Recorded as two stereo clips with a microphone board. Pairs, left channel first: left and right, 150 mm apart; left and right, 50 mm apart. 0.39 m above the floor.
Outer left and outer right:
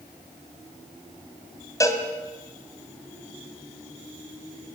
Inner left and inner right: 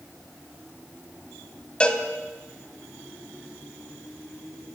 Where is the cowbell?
20° left (ahead or behind), 2.5 m.